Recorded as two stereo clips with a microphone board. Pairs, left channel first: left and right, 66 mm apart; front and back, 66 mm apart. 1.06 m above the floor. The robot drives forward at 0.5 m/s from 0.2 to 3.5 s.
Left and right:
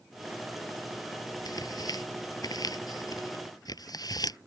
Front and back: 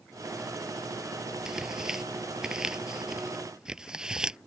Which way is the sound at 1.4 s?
100° left.